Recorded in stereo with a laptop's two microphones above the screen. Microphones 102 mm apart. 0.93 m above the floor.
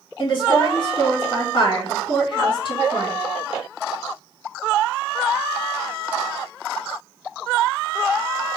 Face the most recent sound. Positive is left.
turn(degrees=50)  # may be behind; listen again after turning